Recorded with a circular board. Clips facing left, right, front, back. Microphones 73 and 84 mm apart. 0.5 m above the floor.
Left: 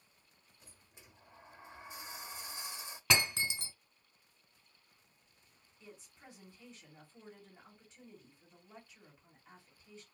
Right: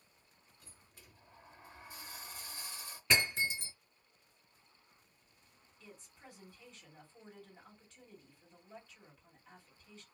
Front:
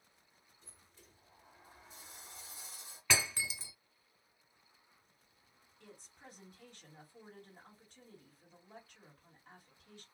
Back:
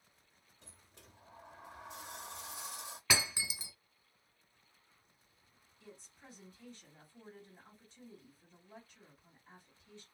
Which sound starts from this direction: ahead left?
A woman speaking, at 5.8 s.